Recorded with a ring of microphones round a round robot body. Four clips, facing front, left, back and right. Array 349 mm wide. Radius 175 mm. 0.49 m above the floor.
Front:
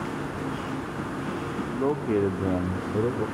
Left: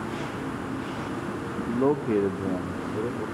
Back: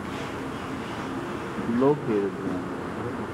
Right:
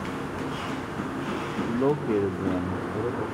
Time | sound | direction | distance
1.7 | a man speaking | 170° left | 0.8 m